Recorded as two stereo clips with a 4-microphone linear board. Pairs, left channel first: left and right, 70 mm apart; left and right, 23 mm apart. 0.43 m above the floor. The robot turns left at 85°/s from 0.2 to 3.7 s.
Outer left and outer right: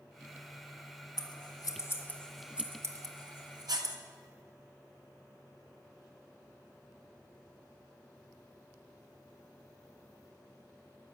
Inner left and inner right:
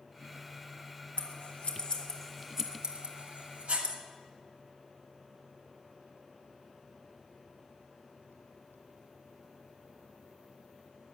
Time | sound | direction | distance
1.2 | scissors | 70° left (ahead or behind) | 1.2 m